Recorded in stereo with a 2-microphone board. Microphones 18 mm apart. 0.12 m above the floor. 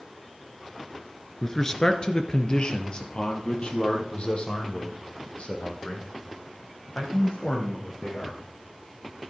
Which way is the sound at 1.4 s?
20° left (ahead or behind).